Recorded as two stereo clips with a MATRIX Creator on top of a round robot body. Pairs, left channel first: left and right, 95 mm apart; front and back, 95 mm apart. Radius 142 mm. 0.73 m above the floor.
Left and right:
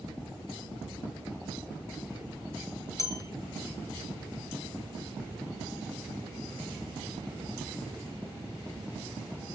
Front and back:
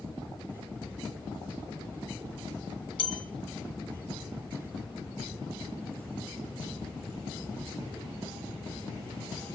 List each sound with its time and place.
3.0 s a bell: 35° left, 2 m